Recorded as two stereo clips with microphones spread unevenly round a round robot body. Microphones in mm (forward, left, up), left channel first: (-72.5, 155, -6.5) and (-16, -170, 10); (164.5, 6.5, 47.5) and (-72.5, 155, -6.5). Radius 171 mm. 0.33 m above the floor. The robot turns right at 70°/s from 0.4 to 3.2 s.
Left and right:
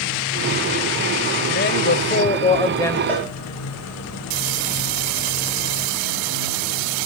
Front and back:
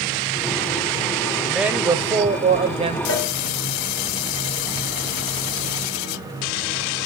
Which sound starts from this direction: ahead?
A cowbell, at 3.1 s.